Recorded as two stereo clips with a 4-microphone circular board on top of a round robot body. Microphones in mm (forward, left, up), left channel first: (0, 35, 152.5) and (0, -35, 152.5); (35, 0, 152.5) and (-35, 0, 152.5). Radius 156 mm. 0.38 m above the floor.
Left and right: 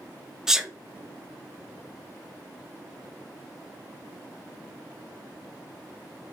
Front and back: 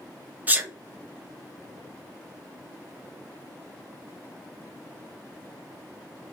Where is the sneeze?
160° right, 0.8 m.